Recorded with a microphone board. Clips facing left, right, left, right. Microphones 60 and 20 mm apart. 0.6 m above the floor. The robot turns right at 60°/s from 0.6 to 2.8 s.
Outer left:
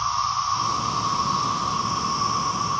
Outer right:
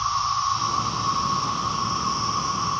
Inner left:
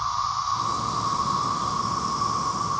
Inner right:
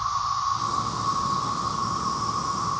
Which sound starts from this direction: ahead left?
An insect, at 0.0 s.